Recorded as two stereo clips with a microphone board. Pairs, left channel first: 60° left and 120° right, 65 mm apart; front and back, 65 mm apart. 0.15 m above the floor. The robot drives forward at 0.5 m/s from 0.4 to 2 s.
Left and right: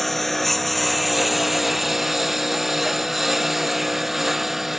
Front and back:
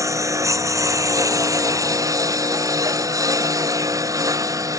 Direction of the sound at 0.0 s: 145° left.